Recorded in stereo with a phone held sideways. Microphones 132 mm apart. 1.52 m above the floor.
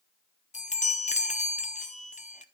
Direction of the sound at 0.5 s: 65° left (ahead or behind).